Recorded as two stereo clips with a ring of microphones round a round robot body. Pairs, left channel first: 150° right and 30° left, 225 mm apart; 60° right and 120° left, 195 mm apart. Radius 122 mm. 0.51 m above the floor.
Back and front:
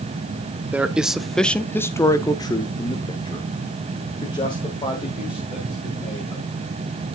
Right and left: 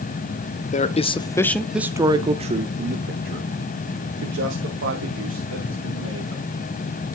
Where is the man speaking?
50° right, 0.8 m; by 6.4 s 140° left, 3 m.